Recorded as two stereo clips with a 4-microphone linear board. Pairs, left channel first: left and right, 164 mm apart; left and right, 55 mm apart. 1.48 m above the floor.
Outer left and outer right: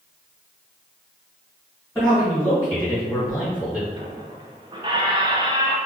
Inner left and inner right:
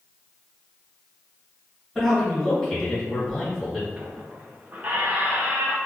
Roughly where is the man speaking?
Centre.